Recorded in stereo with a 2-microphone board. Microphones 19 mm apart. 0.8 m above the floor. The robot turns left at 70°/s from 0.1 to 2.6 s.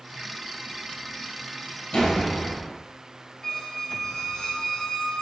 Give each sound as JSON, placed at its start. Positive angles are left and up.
{"t": 1.9, "sound": "a door slam", "azimuth_deg": 65, "distance_m": 2.5}
{"t": 3.4, "sound": "a squeak", "side_deg": 30, "distance_m": 2.0}